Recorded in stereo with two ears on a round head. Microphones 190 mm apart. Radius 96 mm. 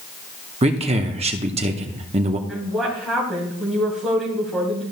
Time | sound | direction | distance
0.6 | a man speaking | 30° right (ahead or behind) | 0.8 m
2.5 | a woman speaking | centre (ahead or behind) | 3 m